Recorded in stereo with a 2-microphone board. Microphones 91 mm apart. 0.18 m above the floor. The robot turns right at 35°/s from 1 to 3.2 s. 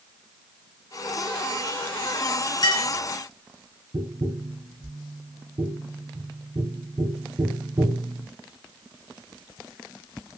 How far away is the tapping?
About 0.8 m.